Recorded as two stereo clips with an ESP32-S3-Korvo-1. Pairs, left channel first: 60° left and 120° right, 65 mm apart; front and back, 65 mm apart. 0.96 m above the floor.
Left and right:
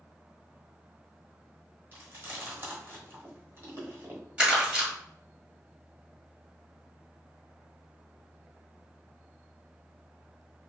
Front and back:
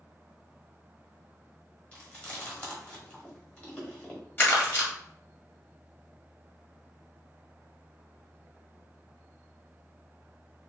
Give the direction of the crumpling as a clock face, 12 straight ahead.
2 o'clock.